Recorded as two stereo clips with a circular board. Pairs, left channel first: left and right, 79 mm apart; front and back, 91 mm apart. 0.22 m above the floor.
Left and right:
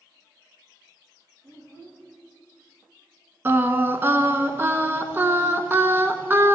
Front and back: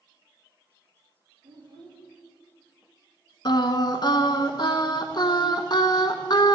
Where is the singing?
30° right, 0.9 m.